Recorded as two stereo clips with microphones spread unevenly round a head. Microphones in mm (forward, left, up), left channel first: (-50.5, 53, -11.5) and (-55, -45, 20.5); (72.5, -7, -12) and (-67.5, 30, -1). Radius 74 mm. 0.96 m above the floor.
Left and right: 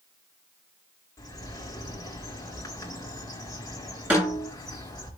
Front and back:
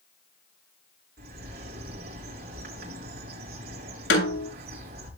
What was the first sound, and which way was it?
A bird, 145° left.